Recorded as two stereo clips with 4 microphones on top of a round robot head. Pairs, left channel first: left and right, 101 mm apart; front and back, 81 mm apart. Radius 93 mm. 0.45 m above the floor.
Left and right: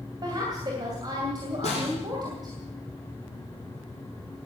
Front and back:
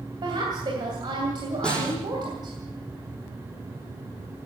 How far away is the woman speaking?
About 3 m.